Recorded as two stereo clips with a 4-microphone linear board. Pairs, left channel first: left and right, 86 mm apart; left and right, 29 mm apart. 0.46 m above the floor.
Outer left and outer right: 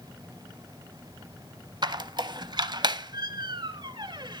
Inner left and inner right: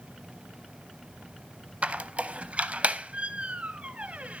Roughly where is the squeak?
Right.